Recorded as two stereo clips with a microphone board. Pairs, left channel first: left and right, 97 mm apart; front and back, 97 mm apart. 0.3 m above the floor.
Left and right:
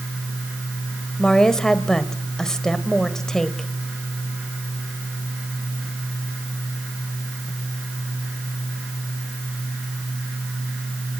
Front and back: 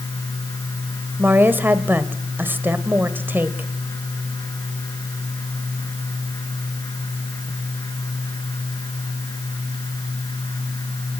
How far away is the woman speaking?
About 1.4 m.